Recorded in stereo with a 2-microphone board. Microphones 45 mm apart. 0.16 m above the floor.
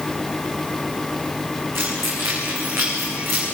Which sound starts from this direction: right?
Keys jangling, at 1.8 s.